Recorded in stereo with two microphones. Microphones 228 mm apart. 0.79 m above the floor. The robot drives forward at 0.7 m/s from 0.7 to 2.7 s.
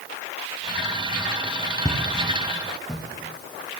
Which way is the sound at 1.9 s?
15° left (ahead or behind).